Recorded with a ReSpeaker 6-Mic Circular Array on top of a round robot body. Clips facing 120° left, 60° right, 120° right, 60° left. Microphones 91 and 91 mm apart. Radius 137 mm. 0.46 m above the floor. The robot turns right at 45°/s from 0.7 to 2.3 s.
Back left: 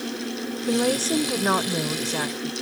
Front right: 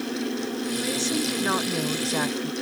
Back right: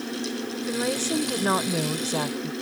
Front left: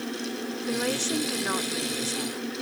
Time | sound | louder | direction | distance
0.7 | a woman speaking | back left 9 dB, back right 2 dB | 150° left | ?